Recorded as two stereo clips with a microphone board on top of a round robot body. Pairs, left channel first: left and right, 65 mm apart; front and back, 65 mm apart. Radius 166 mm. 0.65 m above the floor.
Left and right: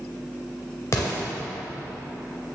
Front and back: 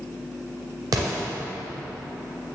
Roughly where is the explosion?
Behind left.